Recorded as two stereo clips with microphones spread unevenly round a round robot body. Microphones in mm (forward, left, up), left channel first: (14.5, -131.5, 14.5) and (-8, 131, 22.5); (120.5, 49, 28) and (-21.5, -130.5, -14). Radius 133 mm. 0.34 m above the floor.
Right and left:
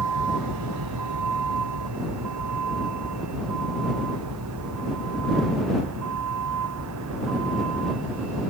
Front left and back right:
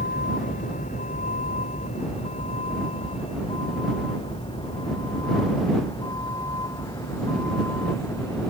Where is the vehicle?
115° left; by 8.5 s 130° left.